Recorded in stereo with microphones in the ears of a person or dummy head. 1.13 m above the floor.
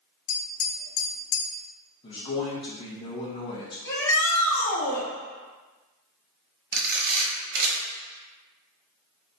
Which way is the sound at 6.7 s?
50° right (ahead or behind).